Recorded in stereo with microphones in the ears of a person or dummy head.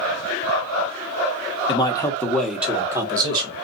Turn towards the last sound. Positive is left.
turn(degrees=-30)  # may be behind; listen again after turning